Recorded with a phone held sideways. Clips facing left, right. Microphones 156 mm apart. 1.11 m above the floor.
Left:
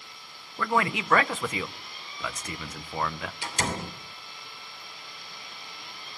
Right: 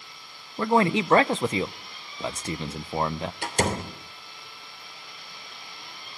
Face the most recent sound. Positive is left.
turn(degrees=-60)  # may be behind; listen again after turning